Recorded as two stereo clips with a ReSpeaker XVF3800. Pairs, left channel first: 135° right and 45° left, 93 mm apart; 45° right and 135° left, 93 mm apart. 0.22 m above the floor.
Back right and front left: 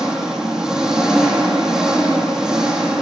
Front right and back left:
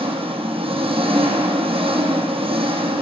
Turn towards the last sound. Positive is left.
turn(degrees=130)